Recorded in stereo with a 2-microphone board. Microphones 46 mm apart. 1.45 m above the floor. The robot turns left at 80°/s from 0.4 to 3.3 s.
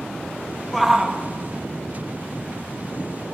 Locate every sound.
0.7 s a shout: 5° left, 1.5 m; by 1.2 s 35° right, 1.5 m